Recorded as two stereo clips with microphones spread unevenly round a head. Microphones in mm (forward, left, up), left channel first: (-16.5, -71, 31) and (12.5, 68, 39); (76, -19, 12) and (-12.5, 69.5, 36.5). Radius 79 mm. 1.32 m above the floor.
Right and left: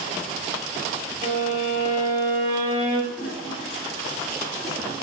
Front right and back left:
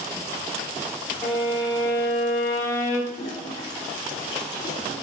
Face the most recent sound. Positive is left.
turn(degrees=15)